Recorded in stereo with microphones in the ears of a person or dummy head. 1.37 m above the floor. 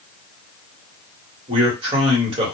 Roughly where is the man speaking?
Right.